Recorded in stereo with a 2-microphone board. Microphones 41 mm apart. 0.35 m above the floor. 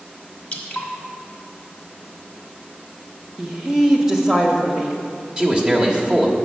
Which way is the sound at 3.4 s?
10° right (ahead or behind).